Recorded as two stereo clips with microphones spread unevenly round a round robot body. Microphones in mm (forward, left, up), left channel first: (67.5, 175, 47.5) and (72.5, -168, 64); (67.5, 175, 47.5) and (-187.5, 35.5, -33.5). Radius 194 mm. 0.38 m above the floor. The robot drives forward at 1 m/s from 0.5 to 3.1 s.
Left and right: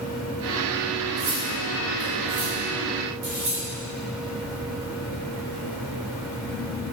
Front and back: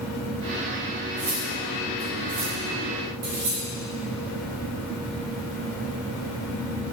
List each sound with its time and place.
1.2 s cutlery clinking: 105° right, 2 m; by 3.6 s 140° right, 3 m